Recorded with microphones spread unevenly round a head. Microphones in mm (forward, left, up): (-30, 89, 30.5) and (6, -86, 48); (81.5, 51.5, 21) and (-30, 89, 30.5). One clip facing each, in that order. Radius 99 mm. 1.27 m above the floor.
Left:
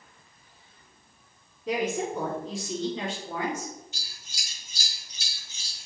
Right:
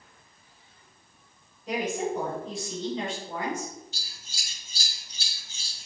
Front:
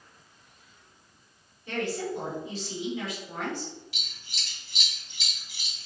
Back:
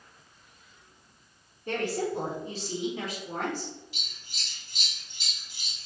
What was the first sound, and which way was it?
A woman speaking, 115° left.